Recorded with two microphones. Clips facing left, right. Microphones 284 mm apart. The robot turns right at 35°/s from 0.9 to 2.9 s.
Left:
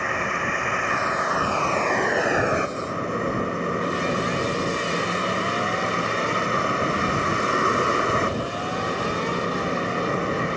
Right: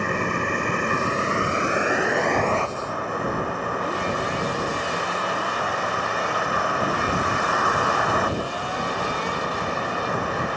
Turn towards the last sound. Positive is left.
turn(degrees=25)